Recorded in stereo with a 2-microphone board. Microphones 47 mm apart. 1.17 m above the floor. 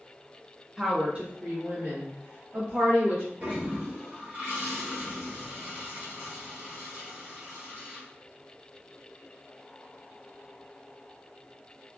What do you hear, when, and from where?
0.8 s a woman speaking: 10° right (ahead or behind), 0.9 m; by 3.3 s 65° right (ahead or behind), 2.5 m
3.4 s a toilet flushing: 40° right (ahead or behind), 1.1 m